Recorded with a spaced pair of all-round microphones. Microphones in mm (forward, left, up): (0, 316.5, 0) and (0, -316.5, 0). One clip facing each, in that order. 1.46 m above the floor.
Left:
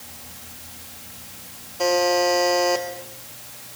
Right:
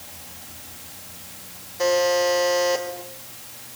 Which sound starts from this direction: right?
A buzzer, at 1.8 s.